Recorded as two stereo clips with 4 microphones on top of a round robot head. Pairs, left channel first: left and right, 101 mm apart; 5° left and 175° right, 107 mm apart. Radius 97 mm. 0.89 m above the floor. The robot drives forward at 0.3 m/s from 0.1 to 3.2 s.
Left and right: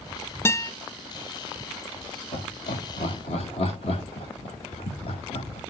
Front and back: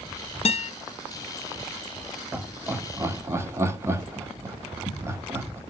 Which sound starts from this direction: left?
Laughter, at 2.3 s.